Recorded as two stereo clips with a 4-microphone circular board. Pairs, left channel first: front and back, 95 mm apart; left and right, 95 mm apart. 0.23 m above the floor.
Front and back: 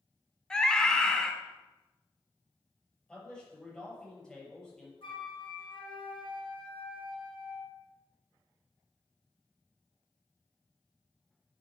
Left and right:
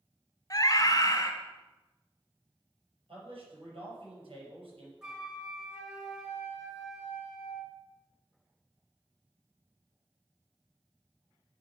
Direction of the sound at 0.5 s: 80° left.